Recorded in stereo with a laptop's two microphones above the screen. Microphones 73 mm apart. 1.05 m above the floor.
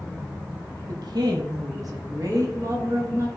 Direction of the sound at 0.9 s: 70° right (ahead or behind).